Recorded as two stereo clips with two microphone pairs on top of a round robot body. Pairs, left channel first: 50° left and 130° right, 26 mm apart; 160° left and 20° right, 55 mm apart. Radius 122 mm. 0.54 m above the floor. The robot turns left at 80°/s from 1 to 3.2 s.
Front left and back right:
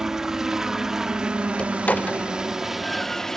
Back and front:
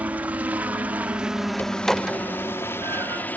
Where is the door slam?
100° left; by 3.2 s 30° right.